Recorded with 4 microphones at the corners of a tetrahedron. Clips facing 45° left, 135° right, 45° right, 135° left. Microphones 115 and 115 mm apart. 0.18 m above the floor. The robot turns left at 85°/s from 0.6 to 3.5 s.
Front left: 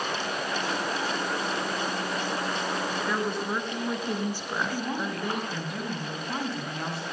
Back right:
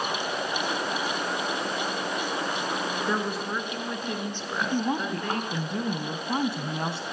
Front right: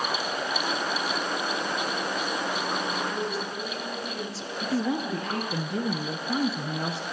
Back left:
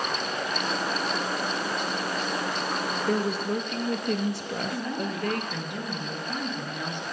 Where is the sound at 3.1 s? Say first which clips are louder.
Even, back left 5 dB; 160° left, 3 m; by 5.6 s 125° left, 3 m.